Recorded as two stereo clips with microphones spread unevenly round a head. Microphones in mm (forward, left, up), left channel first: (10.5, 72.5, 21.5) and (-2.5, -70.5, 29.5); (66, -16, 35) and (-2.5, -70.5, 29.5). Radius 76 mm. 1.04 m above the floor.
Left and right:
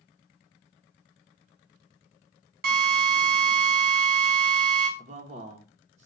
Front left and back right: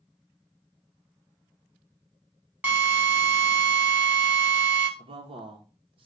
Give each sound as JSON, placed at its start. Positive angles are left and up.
{"t": 2.6, "sound": "a drill", "azimuth_deg": -70, "distance_m": 3.5}
{"t": 5.0, "sound": "a man speaking", "azimuth_deg": -140, "distance_m": 1.5}